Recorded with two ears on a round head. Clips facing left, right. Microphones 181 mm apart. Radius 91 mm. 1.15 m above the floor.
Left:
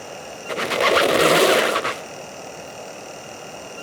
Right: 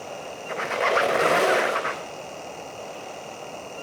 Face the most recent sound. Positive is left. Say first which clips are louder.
# left 5 dB
turn(degrees=45)  # may be behind; listen again after turning